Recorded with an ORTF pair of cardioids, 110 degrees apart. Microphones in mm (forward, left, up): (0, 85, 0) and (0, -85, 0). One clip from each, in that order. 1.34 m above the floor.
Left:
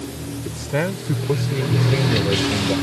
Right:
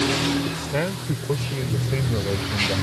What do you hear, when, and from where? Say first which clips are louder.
0.5 s a man speaking: left 2 dB; 15° left; by 2.8 s 20° left